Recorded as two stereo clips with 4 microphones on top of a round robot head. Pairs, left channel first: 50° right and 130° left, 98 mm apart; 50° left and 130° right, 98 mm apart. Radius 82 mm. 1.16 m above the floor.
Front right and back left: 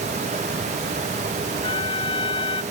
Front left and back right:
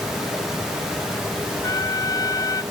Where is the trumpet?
10° right.